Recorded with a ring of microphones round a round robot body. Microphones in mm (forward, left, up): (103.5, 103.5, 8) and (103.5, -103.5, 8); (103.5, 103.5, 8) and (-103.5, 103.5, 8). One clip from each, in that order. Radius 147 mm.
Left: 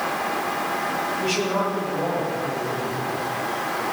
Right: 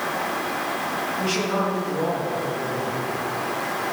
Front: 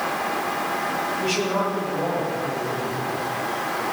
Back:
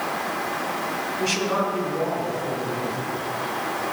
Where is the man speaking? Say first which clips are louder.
Even, back 2 dB; 170° right, 5.5 m; by 3.0 s 150° right, 7 m.